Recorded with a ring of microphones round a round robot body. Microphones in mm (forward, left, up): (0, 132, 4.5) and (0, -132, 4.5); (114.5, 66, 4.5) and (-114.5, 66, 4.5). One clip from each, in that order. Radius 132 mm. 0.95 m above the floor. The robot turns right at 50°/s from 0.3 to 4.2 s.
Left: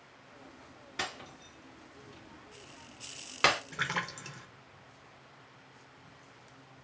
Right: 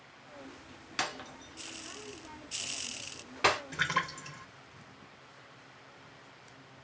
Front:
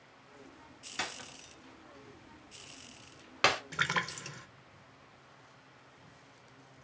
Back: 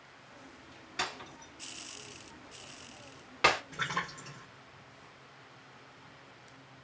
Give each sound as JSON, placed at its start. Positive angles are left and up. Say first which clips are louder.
{"t": 1.0, "sound": "breaking glass", "louder": "right 2 dB, back 2 dB", "azimuth_deg": -75, "distance_m": 1.7}
{"t": 3.7, "sound": "a splash", "louder": "right 3 dB, front 3 dB", "azimuth_deg": -10, "distance_m": 0.7}